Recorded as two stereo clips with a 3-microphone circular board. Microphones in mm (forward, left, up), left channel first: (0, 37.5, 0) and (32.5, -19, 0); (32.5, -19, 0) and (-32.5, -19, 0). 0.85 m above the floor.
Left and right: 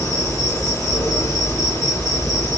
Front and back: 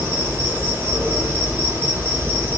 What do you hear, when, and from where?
0.0 s an insect: 125° left, 5 m